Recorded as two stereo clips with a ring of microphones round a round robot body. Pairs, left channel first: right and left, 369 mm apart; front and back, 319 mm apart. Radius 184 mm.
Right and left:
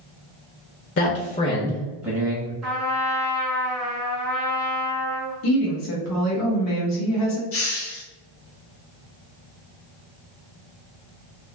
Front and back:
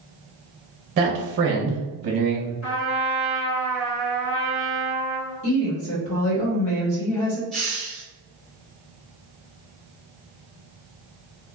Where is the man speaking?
125° right, 0.8 m; by 2.5 s 150° left, 1.0 m.